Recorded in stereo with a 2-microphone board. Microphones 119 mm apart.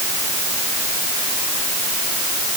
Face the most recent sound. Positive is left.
No sound to turn to.